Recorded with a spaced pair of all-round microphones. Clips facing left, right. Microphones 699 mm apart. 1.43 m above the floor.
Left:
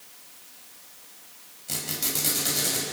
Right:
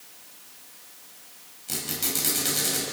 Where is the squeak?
15° left (ahead or behind), 5 m.